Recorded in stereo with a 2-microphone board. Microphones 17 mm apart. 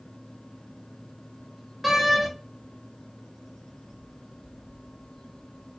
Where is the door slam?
20° right (ahead or behind), 0.6 m.